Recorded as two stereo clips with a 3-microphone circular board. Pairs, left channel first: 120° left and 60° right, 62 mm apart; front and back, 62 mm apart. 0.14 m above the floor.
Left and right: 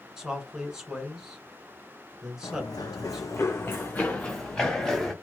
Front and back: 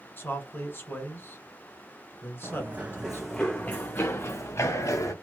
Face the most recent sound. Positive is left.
turn(degrees=35)